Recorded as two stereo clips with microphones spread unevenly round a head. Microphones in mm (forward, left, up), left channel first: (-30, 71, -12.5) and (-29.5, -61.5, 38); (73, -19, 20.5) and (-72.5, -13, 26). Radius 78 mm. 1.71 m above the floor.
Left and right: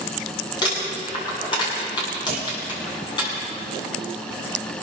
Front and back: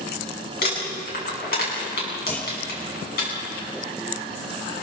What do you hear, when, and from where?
0.6 s crumpling: 25° left, 8.5 m
2.3 s a clunk: 80° right, 4.5 m